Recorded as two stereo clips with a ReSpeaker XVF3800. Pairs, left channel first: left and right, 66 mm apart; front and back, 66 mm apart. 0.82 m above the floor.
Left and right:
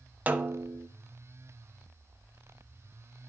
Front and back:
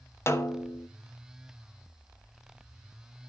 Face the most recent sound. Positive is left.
turn(degrees=-30)